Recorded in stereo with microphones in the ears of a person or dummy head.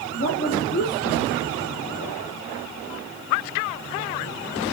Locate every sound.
0.1 s a woman speaking: 40° left (ahead or behind), 2.5 m